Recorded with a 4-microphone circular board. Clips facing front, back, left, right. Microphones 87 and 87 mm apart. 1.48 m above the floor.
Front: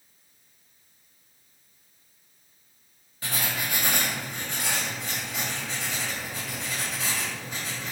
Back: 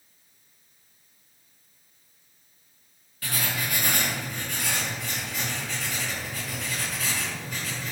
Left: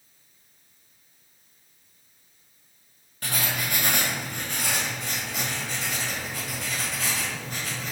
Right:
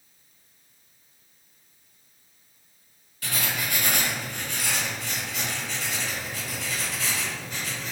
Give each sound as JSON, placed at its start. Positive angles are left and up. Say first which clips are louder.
{"t": 3.2, "sound": "writing", "louder": "even, left 1 dB", "azimuth_deg": 60, "distance_m": 1.0}